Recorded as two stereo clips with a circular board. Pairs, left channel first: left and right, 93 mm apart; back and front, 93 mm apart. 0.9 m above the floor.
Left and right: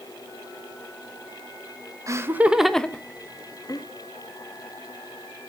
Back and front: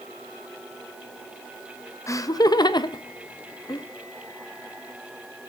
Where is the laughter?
135° right, 0.7 m; by 3.9 s 135° left, 1.2 m.